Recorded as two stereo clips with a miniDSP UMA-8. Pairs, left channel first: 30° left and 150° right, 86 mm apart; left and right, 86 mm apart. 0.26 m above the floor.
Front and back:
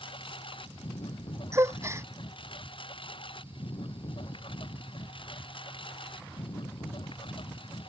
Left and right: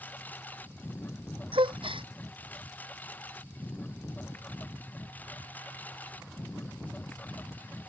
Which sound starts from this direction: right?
A gasp, at 1.5 s.